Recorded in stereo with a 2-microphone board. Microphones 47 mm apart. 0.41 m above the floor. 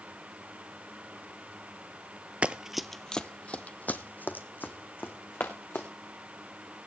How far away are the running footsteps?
About 0.6 m.